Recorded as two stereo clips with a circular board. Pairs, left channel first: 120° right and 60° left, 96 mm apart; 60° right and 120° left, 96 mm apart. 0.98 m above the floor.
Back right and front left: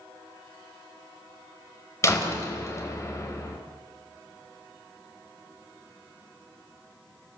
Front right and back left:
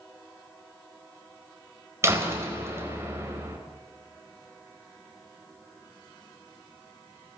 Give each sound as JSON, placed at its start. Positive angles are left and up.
{"t": 2.0, "sound": "a door slam", "azimuth_deg": 180, "distance_m": 3.5}